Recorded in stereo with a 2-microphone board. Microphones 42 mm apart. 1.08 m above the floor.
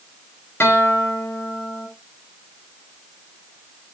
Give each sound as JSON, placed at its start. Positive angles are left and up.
{"t": 0.6, "sound": "a guitar", "side_deg": 75, "distance_m": 1.6}